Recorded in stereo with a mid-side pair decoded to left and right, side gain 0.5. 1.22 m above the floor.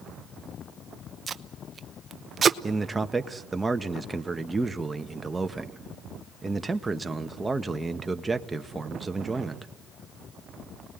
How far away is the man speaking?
About 1.6 m.